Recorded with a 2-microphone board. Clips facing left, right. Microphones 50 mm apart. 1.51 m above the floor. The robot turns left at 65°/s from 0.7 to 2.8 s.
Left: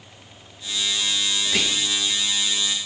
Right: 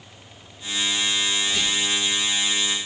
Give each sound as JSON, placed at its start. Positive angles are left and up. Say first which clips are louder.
{"t": 1.4, "sound": "whispering", "louder": "even", "side_deg": 65, "distance_m": 0.8}